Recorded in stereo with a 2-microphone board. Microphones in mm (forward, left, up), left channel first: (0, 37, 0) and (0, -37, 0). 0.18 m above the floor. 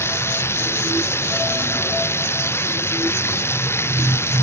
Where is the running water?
35° left (ahead or behind).